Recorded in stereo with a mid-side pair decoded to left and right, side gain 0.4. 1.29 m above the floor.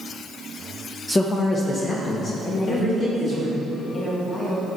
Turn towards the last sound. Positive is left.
turn(degrees=50)